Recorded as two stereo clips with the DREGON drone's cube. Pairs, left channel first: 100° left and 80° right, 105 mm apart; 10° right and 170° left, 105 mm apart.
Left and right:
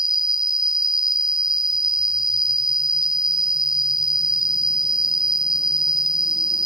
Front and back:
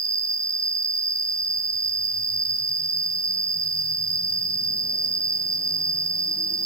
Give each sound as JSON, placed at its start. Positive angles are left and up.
{"t": 0.0, "sound": "an insect", "azimuth_deg": 5, "distance_m": 0.8}